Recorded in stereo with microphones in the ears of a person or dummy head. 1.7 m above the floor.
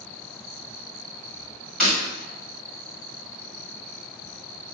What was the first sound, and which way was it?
Breaking glass, 5° right (ahead or behind).